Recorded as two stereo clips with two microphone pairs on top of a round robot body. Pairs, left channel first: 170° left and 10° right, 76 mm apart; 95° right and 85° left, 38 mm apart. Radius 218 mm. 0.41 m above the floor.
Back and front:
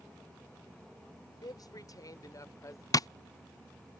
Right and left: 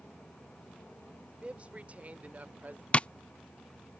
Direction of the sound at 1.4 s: 145° left.